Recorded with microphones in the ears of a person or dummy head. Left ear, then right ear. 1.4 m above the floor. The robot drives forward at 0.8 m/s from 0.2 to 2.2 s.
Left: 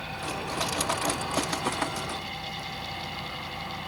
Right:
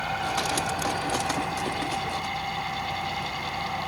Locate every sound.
0.0 s an engine running: 40° right (ahead or behind); by 3.9 s 35° right (ahead or behind)